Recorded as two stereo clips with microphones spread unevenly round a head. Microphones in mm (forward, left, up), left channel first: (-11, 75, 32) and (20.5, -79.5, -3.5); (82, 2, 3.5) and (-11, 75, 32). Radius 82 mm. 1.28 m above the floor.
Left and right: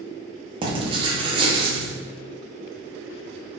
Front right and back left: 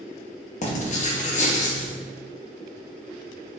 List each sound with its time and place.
0.6 s writing: 20° right, 0.7 m